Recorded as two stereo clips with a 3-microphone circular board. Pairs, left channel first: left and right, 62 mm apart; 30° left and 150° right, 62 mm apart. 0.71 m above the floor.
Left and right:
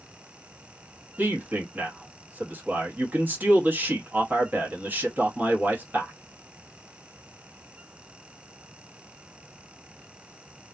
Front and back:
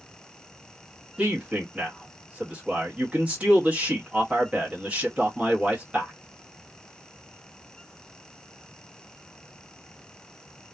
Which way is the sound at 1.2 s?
105° right.